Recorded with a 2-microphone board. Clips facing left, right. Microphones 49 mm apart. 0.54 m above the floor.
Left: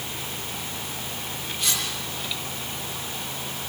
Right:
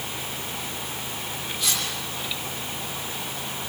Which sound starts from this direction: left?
Cutlery clinking, at 1.6 s.